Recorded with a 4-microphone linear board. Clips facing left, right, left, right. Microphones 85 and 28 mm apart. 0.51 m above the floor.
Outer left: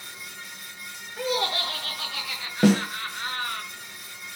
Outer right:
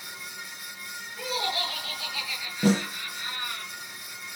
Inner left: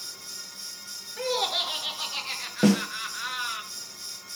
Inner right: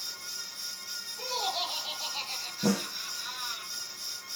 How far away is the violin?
No violin in this recording.